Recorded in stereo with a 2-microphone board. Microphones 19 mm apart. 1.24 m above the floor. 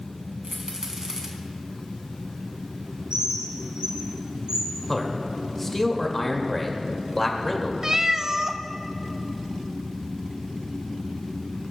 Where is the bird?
60° right (ahead or behind), 5 m.